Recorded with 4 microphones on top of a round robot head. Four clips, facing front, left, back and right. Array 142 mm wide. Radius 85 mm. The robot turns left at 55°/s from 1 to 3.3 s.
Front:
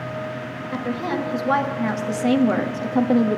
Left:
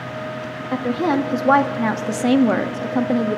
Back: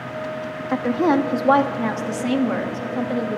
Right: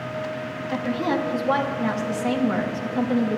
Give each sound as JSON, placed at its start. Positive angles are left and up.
{"t": 0.7, "sound": "a woman speaking", "azimuth_deg": 155, "distance_m": 1.3}